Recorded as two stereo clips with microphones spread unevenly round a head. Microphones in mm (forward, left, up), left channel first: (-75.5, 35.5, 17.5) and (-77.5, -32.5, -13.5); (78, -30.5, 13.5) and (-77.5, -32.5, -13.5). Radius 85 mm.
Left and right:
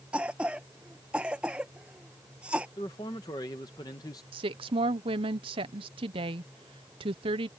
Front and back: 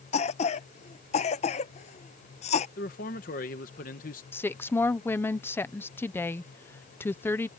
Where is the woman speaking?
75° right.